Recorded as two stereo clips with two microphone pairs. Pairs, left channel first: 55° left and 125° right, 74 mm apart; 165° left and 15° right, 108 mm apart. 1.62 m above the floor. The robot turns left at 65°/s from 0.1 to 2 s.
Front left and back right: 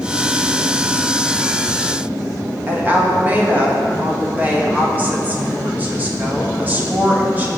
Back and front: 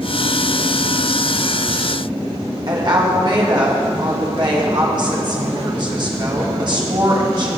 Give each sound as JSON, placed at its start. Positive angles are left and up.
{"t": 2.7, "sound": "a woman speaking", "azimuth_deg": -60, "distance_m": 2.5}